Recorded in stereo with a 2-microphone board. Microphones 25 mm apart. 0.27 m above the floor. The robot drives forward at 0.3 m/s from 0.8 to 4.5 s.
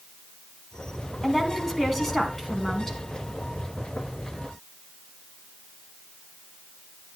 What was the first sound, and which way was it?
A woman speaking, 5° left (ahead or behind).